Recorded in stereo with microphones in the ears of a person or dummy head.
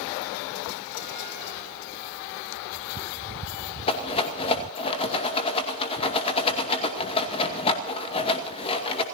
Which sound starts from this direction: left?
A rattle, at 3.9 s.